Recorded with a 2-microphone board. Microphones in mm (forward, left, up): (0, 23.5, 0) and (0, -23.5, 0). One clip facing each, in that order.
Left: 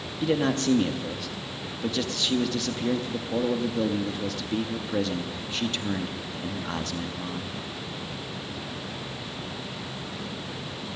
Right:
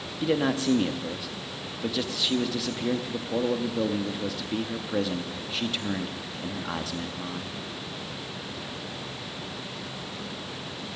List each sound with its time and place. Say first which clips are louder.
0.2 s a man speaking: left 1 dB; 5° right (ahead or behind), 0.8 m